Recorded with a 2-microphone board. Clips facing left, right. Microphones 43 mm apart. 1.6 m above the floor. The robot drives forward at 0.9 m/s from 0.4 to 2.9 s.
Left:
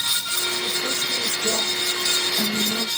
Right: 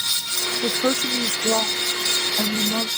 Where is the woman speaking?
80° right; by 2.9 s 35° right (ahead or behind).